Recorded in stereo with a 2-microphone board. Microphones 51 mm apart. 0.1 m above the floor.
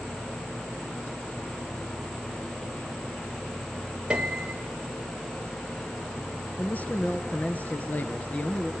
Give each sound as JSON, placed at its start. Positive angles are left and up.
{"t": 4.1, "sound": "a piano", "side_deg": -15, "distance_m": 1.8}
{"t": 6.6, "sound": "a man speaking", "side_deg": 30, "distance_m": 1.4}